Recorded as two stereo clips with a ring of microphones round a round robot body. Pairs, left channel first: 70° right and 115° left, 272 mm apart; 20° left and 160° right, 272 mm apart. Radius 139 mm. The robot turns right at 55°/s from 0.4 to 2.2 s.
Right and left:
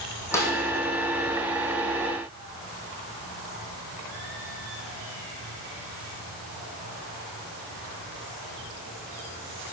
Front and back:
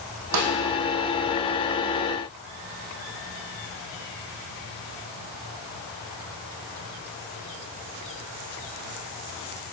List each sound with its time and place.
0.3 s a snare drum: 150° right, 3 m; by 0.5 s 140° right, 3 m